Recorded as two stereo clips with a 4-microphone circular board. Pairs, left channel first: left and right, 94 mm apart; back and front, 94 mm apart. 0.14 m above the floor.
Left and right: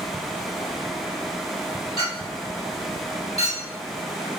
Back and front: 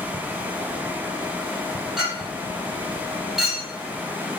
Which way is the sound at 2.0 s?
90° left.